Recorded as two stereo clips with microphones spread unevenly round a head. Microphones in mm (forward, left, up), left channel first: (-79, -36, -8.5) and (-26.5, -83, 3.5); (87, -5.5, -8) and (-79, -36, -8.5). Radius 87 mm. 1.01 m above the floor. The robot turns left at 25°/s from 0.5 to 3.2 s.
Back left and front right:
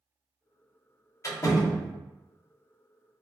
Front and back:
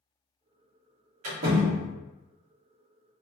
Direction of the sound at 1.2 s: Straight behind.